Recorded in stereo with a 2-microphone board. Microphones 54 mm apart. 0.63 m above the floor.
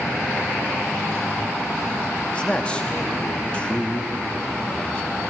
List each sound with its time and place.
2.3 s a man speaking: 20° left (ahead or behind), 1.0 m